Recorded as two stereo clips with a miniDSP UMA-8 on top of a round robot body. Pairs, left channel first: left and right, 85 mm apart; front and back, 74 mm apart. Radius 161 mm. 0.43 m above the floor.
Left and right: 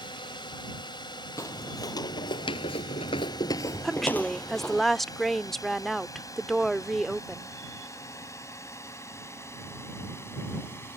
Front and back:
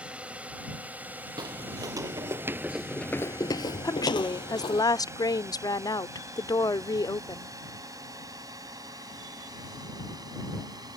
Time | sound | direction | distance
0.0 | a drone | 105° left | ?
1.4 | footsteps | 145° left | ?
3.8 | a woman speaking | straight ahead | ?